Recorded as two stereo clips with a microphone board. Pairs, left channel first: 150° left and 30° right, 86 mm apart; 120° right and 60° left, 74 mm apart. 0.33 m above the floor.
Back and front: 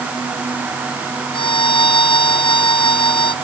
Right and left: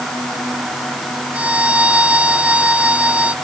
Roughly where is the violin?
Behind left.